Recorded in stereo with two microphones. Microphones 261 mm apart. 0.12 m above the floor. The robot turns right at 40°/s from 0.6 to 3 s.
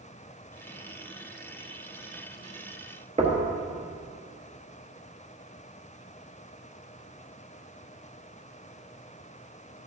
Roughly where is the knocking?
Right.